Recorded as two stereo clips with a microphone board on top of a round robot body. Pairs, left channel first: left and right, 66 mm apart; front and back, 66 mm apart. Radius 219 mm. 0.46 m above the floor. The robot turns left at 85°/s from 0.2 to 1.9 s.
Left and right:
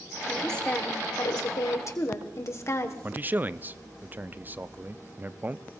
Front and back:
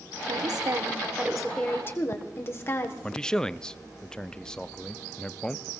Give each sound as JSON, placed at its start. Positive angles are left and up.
{"t": 0.3, "sound": "a woman speaking", "azimuth_deg": -170, "distance_m": 2.0}
{"t": 3.0, "sound": "a man speaking", "azimuth_deg": -70, "distance_m": 0.7}